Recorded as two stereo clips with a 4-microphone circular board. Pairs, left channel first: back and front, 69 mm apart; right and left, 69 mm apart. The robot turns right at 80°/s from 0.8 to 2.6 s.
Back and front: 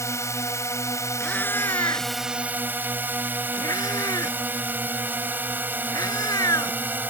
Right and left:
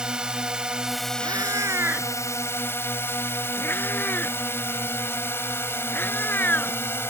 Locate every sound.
0.0 s a drone: 165° left; by 7.1 s 50° right
1.2 s a cat meowing: 95° left; by 6.8 s 150° right